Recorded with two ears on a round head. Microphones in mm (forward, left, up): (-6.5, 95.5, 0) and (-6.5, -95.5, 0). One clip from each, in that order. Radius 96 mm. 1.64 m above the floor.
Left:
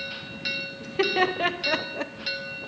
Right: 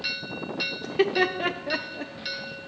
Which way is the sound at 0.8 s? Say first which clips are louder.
Even; 15° right (ahead or behind).